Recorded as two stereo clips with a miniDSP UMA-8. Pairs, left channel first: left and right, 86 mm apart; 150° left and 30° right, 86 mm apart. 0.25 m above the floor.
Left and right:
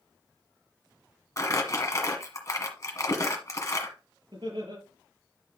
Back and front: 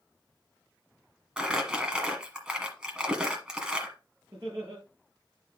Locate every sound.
1.4 s crumpling: 50° left, 1.5 m
4.3 s laughter: 80° right, 5 m